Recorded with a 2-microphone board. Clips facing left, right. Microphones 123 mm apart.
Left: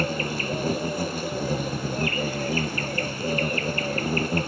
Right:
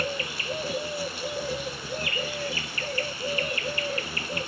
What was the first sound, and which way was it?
An insect, 45° left (ahead or behind).